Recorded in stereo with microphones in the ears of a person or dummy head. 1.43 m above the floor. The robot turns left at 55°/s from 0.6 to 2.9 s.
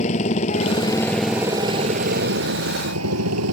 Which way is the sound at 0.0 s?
40° left.